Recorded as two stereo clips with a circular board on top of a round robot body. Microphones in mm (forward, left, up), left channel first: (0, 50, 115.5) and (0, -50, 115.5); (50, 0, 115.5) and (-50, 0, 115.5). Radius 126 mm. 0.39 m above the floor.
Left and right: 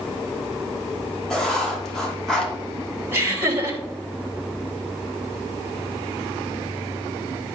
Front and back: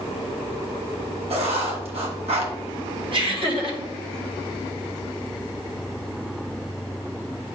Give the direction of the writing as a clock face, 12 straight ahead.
6 o'clock.